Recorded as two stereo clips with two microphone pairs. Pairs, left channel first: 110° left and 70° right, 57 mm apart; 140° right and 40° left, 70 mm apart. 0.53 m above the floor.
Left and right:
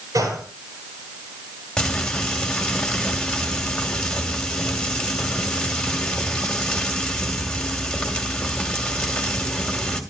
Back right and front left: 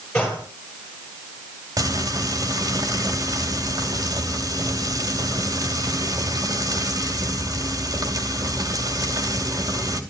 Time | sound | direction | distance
0.1 | a gunshot | 65° right | 9 m
1.8 | frying | 30° left | 2.5 m